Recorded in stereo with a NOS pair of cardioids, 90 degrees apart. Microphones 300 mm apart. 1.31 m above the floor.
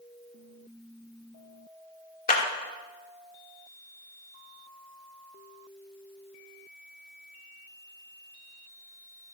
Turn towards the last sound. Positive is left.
turn(degrees=30)